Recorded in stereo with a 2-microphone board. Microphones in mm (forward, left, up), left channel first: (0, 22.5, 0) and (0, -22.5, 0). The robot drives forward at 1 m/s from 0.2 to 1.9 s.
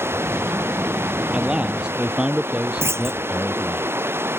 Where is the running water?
65° right (ahead or behind); by 4.4 s 60° right (ahead or behind).